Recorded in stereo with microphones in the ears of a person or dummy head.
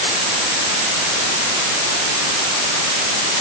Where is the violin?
No violin in this recording.